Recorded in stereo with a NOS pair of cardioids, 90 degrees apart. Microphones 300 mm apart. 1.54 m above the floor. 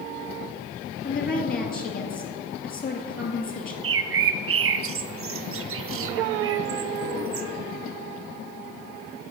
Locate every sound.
1.0 s a woman speaking: 30° left, 2 m
3.8 s a bird: 45° right, 0.6 m